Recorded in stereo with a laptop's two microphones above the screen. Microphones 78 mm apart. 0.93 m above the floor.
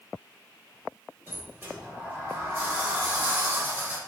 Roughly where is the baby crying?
No baby crying in this recording.